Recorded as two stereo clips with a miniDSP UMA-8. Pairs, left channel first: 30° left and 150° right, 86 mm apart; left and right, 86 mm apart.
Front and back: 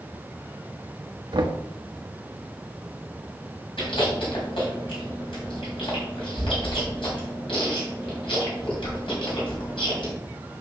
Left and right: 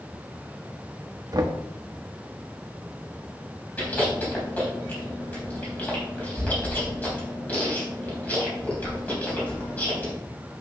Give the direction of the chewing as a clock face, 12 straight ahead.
11 o'clock.